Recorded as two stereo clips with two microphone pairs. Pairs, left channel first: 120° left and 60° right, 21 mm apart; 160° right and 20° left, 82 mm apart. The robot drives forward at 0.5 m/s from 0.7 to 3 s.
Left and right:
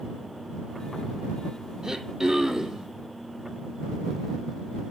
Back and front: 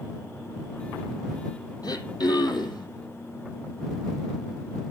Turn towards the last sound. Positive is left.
turn(degrees=-140)